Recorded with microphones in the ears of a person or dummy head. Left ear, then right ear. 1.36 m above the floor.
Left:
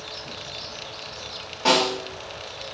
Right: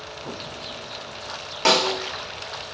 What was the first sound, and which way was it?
A snare drum, 40° right (ahead or behind).